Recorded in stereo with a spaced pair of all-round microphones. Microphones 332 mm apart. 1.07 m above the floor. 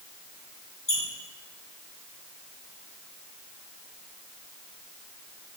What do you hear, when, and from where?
0.9 s a squeak: 65° left (ahead or behind), 1.6 m